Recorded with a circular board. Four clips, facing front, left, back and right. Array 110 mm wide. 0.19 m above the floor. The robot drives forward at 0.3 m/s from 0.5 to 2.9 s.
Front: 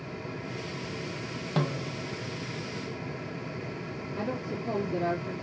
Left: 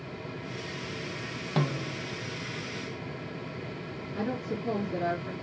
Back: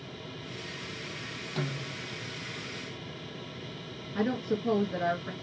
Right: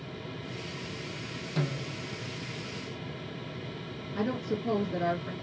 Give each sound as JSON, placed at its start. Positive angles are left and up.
{"t": 1.6, "sound": "a snare drum", "azimuth_deg": 45, "distance_m": 1.1}
{"t": 4.2, "sound": "a woman speaking", "azimuth_deg": -165, "distance_m": 3.0}